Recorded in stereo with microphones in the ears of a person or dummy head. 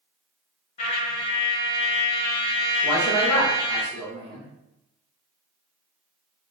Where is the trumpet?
35° left (ahead or behind), 0.7 m.